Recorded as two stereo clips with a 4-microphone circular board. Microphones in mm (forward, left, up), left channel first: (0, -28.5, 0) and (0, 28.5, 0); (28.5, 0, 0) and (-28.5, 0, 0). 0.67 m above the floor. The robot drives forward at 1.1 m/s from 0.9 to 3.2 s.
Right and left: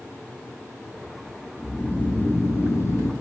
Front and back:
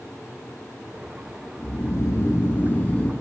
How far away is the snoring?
About 2.5 m.